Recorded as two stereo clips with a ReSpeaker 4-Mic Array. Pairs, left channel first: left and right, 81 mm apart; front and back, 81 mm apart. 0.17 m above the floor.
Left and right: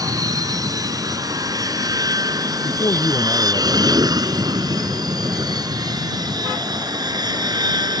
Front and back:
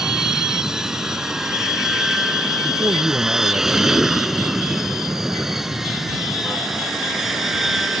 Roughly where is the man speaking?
Behind left.